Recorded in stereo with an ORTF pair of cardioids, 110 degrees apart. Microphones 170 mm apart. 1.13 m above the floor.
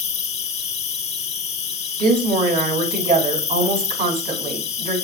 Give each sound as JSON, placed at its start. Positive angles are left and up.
{"t": 0.0, "sound": "an insect", "azimuth_deg": 40, "distance_m": 1.4}
{"t": 2.0, "sound": "a woman speaking", "azimuth_deg": -50, "distance_m": 6.5}